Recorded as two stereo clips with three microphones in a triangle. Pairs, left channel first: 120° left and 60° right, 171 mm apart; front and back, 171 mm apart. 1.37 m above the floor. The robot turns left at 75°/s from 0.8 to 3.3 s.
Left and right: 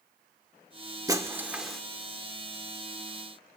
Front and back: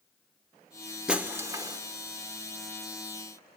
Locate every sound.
1.1 s breaking glass: 105° right, 1.0 m; by 1.8 s 155° right, 1.0 m